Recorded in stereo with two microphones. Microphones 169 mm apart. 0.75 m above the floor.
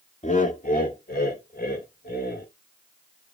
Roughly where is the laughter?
Left.